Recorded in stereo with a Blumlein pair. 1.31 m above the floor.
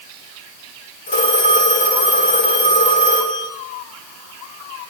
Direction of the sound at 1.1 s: 60° left.